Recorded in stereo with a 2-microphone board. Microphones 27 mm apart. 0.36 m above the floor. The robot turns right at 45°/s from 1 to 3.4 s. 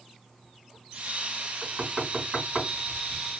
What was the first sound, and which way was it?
Knocking, 50° right (ahead or behind).